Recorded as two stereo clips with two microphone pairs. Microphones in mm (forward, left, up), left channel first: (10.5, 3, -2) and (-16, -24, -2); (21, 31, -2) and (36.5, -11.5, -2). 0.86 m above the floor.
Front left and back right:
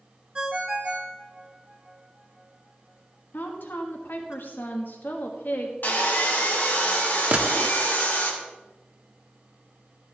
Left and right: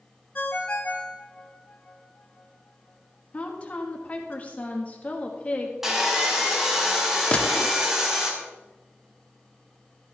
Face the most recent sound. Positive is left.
turn(degrees=170)